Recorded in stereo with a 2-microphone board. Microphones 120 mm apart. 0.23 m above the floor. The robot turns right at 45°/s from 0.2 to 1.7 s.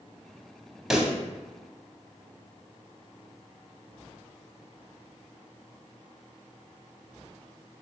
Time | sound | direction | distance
0.9 | a pop | 5° right (ahead or behind) | 0.5 m